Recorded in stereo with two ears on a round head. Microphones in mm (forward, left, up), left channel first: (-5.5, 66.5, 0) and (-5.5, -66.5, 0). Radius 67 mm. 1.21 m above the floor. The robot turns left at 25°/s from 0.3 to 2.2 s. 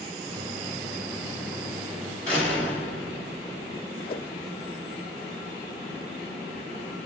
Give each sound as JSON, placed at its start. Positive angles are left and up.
{"t": 2.3, "sound": "a door slam", "side_deg": 5, "distance_m": 6.0}
{"t": 4.1, "sound": "a whoosh", "side_deg": 35, "distance_m": 0.6}